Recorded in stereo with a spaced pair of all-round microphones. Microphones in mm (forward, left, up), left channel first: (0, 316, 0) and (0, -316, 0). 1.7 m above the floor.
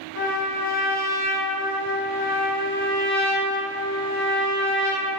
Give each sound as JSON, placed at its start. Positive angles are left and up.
{"t": 0.1, "sound": "a trumpet", "side_deg": 20, "distance_m": 1.1}